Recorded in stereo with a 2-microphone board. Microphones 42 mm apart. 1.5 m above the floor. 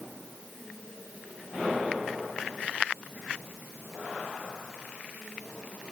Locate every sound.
Only background noise.